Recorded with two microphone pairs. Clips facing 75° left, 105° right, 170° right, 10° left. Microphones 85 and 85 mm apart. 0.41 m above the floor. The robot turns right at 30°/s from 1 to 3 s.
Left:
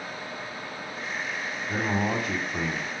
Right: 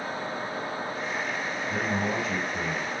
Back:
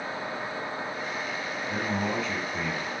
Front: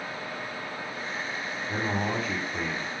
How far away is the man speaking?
About 2 m.